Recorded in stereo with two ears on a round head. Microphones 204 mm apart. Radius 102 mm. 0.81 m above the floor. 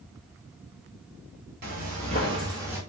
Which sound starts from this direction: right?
Footsteps, at 1.6 s.